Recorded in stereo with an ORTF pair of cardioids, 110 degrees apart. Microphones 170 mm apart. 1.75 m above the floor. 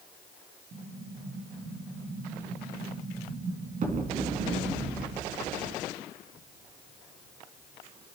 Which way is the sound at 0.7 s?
50° right.